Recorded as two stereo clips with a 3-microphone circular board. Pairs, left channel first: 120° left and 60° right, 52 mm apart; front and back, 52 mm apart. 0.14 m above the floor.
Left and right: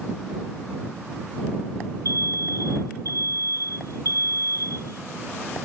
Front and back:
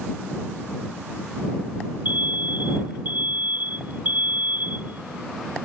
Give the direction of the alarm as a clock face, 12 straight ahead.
8 o'clock.